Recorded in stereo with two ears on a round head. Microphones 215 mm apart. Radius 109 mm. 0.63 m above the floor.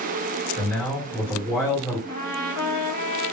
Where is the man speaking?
15° left (ahead or behind), 2 m.